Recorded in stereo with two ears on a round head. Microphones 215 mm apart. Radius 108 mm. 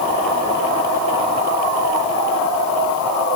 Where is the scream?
I don't hear a scream.